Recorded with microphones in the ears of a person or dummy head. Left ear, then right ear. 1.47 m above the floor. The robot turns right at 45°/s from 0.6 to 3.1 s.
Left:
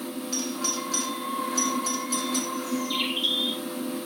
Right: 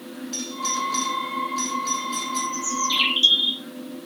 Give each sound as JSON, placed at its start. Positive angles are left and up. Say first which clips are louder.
{"t": 0.3, "sound": "a doorbell", "louder": "right 3 dB", "side_deg": 55, "distance_m": 4.0}
{"t": 2.5, "sound": "a bird", "louder": "right 6 dB", "side_deg": -60, "distance_m": 2.5}